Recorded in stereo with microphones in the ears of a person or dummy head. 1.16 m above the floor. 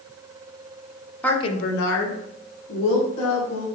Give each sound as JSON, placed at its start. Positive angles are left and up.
{"t": 1.2, "sound": "a woman speaking", "side_deg": 5, "distance_m": 0.5}